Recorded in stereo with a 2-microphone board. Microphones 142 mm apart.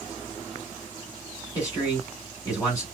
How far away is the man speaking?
About 1.8 m.